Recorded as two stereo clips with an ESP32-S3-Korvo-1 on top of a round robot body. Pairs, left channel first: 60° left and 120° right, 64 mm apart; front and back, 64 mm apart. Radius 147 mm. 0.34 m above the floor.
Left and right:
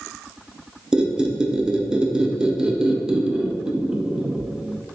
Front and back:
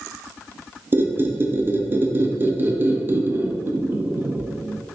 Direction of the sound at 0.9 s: 175° left.